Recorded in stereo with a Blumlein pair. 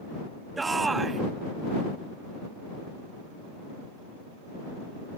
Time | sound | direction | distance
0.6 | a shout | 10° right | ?